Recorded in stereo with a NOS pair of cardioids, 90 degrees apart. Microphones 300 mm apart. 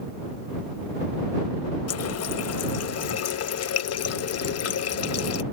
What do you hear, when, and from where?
1.9 s a running tap: 55° left